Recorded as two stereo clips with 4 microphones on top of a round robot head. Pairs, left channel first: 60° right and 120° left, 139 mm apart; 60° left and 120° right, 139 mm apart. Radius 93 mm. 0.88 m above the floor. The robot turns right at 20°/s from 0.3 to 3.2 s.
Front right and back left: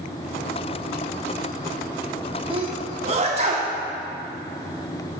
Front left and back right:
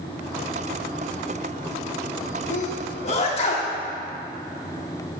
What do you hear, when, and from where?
2.5 s a sneeze: 75° left, 1.8 m; by 3.7 s 90° left, 1.8 m